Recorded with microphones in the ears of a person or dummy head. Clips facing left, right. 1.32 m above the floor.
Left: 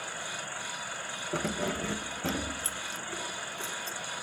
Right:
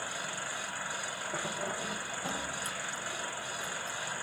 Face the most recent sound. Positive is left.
turn(degrees=40)  # may be behind; listen again after turning